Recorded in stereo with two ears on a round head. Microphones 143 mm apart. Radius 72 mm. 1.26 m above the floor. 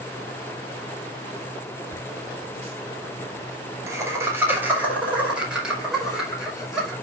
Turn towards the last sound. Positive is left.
turn(degrees=0)  # may be behind; listen again after turning